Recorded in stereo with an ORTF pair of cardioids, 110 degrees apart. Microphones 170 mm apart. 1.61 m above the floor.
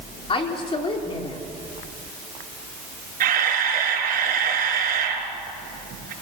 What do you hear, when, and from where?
0.3 s a woman speaking: 30° left, 4 m
3.2 s a camera shutter: 55° right, 5 m